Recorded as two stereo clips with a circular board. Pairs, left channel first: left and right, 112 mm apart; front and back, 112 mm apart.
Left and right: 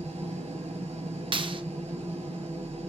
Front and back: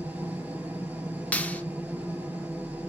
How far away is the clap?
About 1.0 m.